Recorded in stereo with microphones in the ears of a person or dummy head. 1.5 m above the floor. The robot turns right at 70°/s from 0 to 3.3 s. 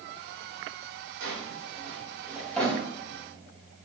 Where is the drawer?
65° right (ahead or behind), 1.2 m; by 3.9 s 50° left (ahead or behind), 1.2 m.